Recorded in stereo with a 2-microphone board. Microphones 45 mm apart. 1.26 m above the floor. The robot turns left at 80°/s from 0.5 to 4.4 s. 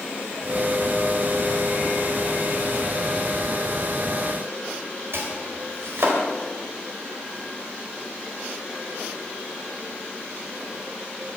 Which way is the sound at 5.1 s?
65° right (ahead or behind).